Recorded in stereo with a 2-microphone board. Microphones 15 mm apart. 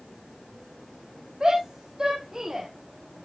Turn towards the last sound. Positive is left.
turn(degrees=-35)  # may be behind; listen again after turning